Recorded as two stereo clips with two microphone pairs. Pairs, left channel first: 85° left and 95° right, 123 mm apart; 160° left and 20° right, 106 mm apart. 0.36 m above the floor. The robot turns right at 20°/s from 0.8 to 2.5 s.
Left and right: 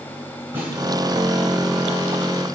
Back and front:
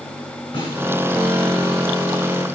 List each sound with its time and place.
0.5 s a snare drum: 165° right, 3 m